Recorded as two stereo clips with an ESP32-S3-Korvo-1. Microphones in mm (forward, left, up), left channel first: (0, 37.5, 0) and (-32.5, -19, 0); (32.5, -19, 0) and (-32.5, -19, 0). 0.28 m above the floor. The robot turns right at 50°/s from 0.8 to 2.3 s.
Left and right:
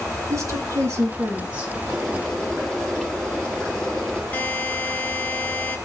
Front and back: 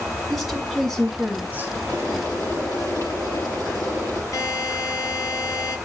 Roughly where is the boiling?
Ahead right.